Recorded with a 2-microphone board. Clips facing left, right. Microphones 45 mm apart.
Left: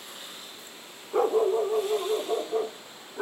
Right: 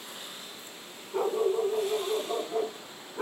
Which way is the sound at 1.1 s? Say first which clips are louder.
Left 4 dB; 60° left (ahead or behind).